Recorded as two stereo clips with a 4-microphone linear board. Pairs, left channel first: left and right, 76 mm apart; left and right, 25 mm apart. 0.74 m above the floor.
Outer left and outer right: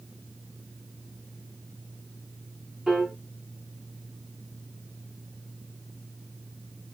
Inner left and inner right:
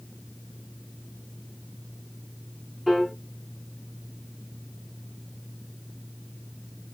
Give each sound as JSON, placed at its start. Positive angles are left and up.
{"t": 2.9, "sound": "a piano", "side_deg": 0, "distance_m": 1.1}